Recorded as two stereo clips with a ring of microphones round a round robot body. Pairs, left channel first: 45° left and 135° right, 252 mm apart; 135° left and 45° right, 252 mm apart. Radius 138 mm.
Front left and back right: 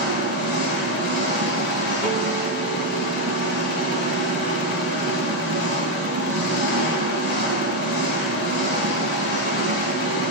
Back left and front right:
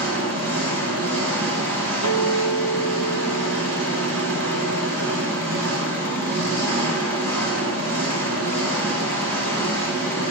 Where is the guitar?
50° right, 2 m.